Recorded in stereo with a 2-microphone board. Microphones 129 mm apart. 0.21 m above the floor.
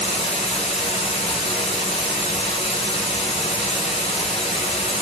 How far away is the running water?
About 1.0 m.